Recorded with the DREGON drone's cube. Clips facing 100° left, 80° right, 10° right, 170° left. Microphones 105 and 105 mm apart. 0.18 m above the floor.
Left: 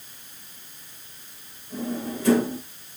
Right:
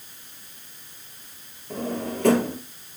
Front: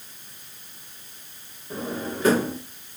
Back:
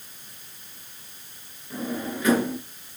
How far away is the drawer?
About 2 m.